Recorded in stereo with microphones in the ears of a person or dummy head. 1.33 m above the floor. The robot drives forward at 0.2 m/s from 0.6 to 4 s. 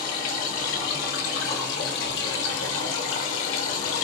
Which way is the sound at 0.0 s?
50° left (ahead or behind).